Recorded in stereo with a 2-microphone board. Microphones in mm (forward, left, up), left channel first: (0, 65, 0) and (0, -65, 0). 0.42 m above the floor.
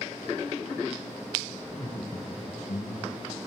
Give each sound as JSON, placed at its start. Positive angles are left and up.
{"t": 1.7, "sound": "laughter", "side_deg": 35, "distance_m": 1.4}